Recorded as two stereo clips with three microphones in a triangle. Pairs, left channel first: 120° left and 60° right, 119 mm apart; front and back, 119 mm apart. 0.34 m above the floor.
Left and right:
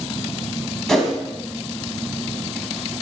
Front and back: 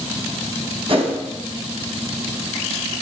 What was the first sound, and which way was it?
A whoosh, 155° right.